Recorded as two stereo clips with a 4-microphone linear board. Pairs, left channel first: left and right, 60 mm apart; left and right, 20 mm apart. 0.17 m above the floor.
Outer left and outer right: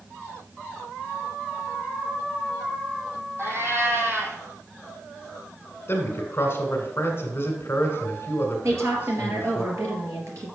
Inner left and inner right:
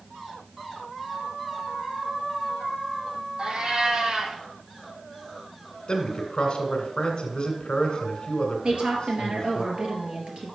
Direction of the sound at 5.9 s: 40° left (ahead or behind).